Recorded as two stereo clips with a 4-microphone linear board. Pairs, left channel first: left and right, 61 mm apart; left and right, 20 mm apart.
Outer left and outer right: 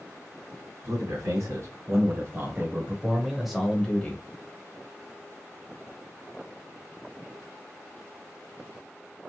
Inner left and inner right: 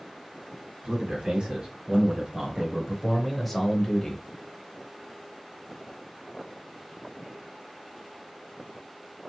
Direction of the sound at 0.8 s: 60° right (ahead or behind).